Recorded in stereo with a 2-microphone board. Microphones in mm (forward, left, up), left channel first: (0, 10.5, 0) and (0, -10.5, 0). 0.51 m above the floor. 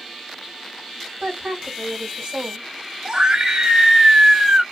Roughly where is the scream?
Right.